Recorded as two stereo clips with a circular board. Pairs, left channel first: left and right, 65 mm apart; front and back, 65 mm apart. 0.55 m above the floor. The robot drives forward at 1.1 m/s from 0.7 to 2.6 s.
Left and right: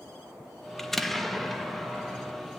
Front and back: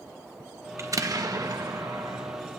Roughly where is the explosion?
Behind.